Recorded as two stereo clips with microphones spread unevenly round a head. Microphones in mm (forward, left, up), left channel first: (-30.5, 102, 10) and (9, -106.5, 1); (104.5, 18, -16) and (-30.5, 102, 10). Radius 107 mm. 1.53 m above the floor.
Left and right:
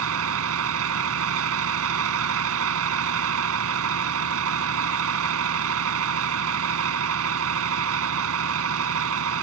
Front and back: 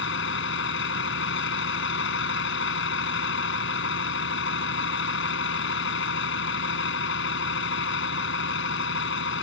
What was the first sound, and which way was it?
A vehicle, 55° right.